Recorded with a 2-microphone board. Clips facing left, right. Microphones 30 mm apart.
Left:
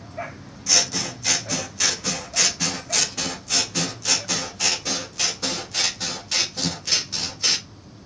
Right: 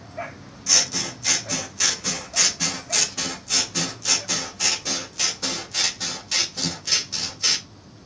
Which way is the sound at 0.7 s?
Centre (ahead or behind).